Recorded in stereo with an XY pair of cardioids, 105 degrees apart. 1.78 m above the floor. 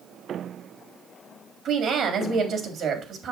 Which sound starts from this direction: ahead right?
A woman speaking, at 1.6 s.